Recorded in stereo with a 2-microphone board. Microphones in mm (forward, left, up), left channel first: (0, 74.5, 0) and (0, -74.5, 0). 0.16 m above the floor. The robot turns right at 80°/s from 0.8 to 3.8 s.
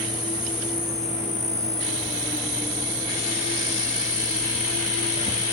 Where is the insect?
45° left, 1.0 m; by 5.5 s 75° right, 1.0 m.